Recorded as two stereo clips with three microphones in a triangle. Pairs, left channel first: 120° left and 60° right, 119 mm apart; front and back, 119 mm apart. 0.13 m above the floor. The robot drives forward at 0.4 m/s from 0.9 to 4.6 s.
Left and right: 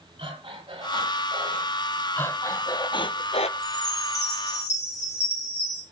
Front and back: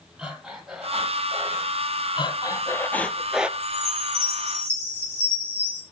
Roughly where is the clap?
I don't hear a clap.